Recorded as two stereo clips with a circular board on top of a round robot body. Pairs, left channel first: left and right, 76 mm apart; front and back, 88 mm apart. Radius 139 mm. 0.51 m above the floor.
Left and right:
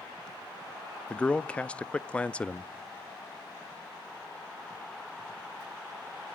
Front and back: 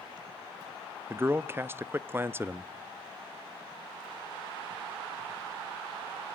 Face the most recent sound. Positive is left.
turn(degrees=150)